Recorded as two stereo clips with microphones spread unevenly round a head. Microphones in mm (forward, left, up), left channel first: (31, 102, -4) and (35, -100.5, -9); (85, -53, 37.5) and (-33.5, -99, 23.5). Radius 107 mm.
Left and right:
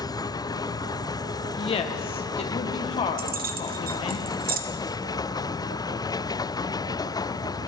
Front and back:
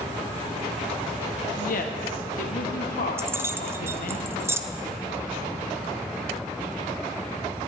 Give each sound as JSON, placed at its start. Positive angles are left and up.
{"t": 1.6, "sound": "a woman speaking", "azimuth_deg": 30, "distance_m": 1.3}
{"t": 3.2, "sound": "keys jangling", "azimuth_deg": -90, "distance_m": 0.8}